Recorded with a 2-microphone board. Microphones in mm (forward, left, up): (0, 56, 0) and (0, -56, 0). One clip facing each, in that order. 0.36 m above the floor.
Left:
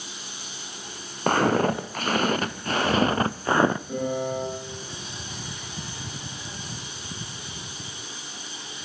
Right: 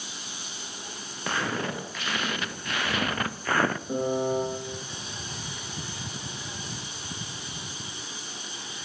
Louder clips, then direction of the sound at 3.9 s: Right 1 dB; 25° right (ahead or behind).